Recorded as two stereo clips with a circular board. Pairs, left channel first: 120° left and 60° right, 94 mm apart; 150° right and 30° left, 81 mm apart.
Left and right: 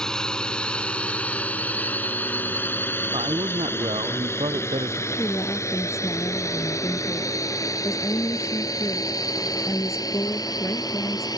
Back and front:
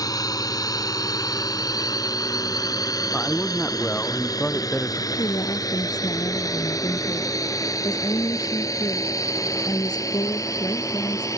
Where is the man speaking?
75° right.